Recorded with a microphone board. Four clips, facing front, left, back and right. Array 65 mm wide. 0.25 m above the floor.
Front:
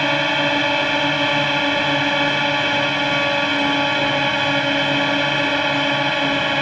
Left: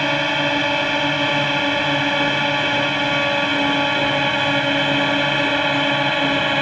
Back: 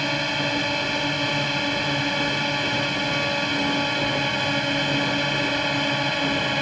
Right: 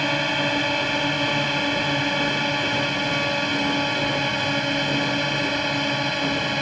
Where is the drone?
25° left; by 6.6 s 50° left.